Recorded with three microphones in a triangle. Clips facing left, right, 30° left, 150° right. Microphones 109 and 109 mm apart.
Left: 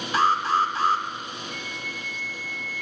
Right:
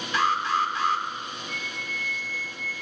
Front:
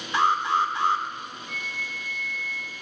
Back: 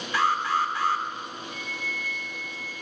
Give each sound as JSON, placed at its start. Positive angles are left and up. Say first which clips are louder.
{"t": 0.1, "sound": "an alarm", "louder": "left 3 dB, front 2 dB", "azimuth_deg": 80, "distance_m": 1.1}
{"t": 1.5, "sound": "a flute", "louder": "even, back 1 dB", "azimuth_deg": 30, "distance_m": 6.5}